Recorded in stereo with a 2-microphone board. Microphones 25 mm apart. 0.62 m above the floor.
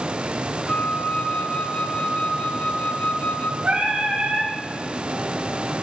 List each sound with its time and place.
0.7 s a flute: 80° left, 1.2 m
3.6 s singing: 70° right (ahead or behind), 8.5 m